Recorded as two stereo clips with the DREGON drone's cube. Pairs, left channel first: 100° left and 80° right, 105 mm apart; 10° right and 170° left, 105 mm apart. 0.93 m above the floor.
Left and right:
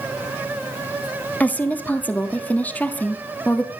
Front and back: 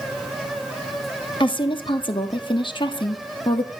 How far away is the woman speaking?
About 1.6 m.